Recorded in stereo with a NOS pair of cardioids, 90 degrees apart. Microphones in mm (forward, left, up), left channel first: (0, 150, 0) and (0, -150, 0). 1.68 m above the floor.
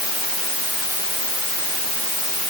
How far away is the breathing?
I don't hear breathing.